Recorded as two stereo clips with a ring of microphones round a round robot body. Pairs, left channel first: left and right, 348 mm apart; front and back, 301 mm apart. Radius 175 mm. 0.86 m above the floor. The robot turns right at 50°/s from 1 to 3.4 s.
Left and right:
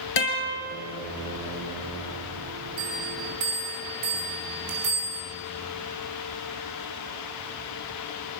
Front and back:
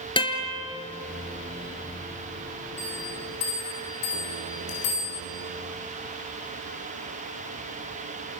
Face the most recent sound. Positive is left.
turn(degrees=-55)